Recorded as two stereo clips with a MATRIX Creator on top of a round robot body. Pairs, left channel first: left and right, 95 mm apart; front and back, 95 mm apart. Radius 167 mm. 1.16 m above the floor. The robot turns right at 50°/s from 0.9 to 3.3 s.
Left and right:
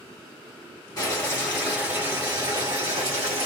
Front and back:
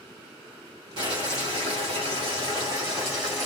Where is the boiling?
145° left, 1.5 m; by 3.5 s 95° right, 1.5 m.